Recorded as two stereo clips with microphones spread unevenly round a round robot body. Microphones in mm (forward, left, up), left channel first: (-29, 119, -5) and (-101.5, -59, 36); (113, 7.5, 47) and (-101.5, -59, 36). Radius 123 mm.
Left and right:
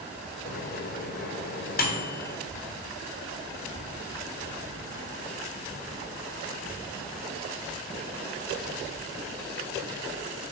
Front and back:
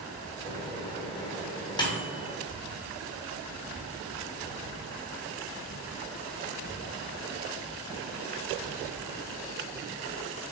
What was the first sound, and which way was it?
A microwave, 85° left.